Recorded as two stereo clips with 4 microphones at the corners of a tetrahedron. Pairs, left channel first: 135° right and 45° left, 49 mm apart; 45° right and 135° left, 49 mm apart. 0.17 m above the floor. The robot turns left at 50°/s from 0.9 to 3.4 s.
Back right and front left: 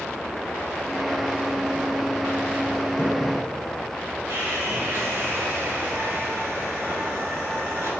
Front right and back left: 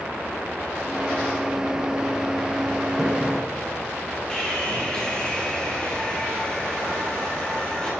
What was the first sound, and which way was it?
A splash, 125° right.